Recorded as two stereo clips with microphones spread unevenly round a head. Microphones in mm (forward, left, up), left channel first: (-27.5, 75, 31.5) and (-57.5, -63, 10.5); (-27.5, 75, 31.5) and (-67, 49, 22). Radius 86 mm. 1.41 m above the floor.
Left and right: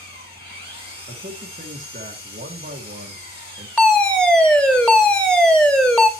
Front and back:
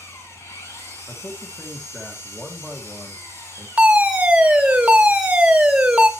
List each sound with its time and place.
0.0 s an engine running: 40° left, 6.5 m
1.1 s a man speaking: 55° right, 1.6 m
3.8 s a fire alarm: 170° left, 1.2 m